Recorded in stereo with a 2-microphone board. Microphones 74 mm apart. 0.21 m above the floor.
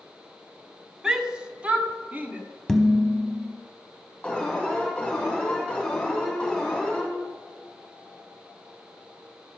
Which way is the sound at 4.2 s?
10° left (ahead or behind).